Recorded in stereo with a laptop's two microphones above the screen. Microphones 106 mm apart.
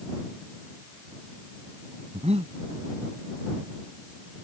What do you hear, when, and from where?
2.1 s breathing: 75° right (ahead or behind)